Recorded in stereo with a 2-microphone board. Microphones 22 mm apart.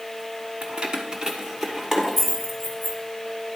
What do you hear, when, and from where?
0.6 s keys jangling: 55° right (ahead or behind), 0.9 m; by 3.0 s 5° right (ahead or behind), 2 m